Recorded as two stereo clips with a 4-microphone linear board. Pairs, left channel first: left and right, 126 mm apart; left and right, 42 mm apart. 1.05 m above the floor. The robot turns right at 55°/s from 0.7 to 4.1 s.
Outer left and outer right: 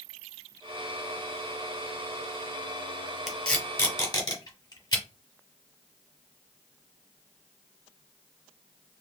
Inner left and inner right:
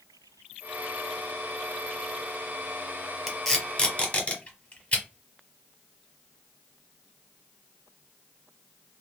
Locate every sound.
3.3 s tape being pulled: centre (ahead or behind), 1.3 m; by 5.0 s 35° left (ahead or behind), 1.3 m